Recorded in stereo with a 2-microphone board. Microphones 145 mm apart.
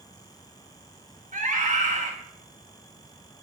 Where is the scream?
60° right (ahead or behind), 2.5 m.